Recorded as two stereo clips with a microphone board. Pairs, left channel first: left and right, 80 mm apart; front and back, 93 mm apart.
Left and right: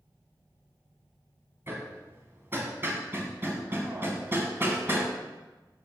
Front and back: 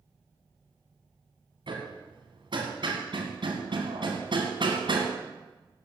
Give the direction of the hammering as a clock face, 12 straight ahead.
5 o'clock.